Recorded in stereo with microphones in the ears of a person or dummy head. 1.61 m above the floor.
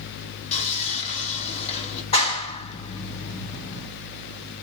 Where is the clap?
30° left (ahead or behind), 3 m.